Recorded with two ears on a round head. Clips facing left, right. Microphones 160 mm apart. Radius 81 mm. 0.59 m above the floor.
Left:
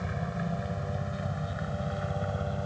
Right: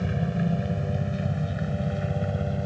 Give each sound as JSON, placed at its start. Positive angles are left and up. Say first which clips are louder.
{"t": 0.0, "sound": "a helicopter", "louder": "right 7 dB", "side_deg": -35}